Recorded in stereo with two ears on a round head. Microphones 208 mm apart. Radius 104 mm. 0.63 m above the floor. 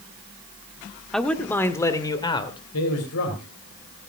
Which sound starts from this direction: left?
A man speaking, at 2.7 s.